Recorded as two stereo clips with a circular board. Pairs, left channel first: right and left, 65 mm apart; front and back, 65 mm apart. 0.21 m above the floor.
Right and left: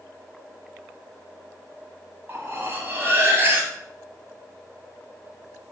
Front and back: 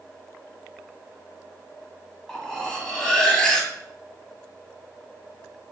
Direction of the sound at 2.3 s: 75° left.